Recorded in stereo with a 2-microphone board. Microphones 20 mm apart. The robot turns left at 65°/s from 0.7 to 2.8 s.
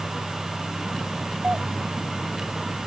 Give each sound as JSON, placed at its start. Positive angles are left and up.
{"t": 1.4, "sound": "a doorbell", "side_deg": -60}